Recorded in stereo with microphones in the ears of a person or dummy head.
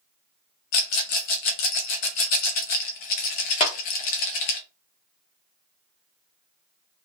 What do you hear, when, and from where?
0.7 s a rattle: 45° left (ahead or behind), 0.6 m
3.6 s a clap: 30° left (ahead or behind), 0.8 m